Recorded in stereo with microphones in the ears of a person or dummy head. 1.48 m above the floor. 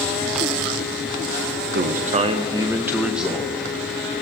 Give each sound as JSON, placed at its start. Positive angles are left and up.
{"t": 1.7, "sound": "a man speaking", "side_deg": -50, "distance_m": 0.5}